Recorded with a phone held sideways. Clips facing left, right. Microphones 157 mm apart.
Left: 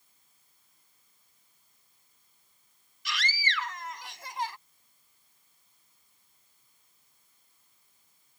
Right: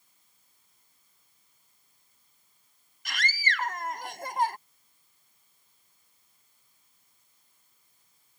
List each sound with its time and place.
3.0 s a scream: 50° right (ahead or behind)